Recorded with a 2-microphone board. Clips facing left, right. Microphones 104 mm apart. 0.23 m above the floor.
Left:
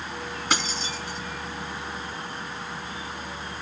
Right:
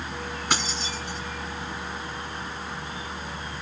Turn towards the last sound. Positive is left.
turn(degrees=0)  # may be behind; listen again after turning